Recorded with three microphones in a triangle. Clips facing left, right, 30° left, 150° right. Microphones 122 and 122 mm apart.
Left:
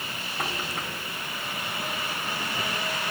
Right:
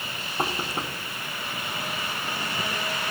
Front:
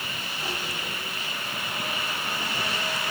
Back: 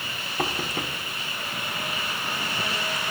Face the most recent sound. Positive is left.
turn(degrees=-150)